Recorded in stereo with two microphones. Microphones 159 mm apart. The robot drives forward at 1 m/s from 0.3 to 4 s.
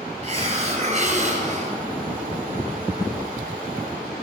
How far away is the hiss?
About 2 m.